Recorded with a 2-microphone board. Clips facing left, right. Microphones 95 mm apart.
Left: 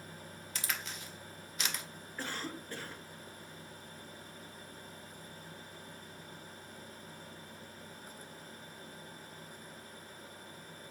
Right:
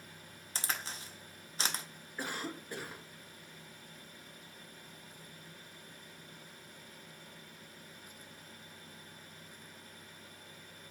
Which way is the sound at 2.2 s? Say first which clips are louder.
Right 1 dB; 15° right (ahead or behind).